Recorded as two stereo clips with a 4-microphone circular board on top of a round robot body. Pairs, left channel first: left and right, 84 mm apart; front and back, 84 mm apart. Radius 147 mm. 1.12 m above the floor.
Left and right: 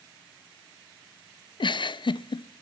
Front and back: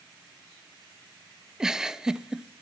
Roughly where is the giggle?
Left.